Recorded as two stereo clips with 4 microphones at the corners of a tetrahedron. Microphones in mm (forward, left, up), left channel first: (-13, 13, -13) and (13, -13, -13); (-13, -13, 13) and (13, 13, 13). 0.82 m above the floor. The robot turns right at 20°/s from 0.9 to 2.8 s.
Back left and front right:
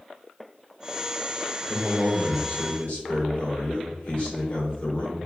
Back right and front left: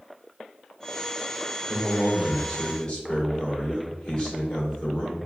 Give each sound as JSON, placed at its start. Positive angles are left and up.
{"t": 1.6, "sound": "a man speaking", "azimuth_deg": 140, "distance_m": 1.8}